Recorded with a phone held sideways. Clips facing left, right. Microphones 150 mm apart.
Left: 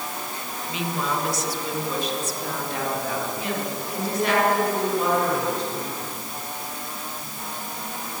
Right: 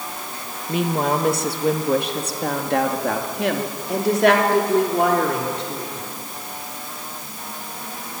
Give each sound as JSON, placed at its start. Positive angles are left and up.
{"t": 0.7, "sound": "a woman speaking", "side_deg": -50, "distance_m": 1.9}